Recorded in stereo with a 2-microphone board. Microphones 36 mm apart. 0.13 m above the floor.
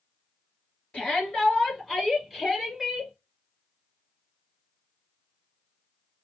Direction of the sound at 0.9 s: 25° left (ahead or behind).